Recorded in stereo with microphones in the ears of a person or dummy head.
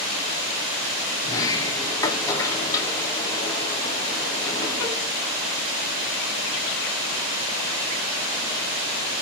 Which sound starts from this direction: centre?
A sliding door, at 1.2 s.